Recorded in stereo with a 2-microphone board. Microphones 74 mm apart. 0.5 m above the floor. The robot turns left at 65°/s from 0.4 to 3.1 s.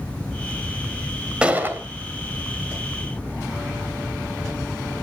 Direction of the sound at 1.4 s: 15° right (ahead or behind).